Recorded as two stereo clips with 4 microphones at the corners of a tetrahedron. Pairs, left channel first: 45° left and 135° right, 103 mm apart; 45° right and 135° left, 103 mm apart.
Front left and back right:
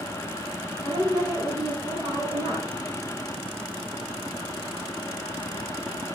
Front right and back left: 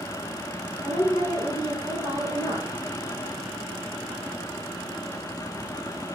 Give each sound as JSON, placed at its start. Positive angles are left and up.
{"t": 0.8, "sound": "a woman speaking", "azimuth_deg": -100, "distance_m": 1.7}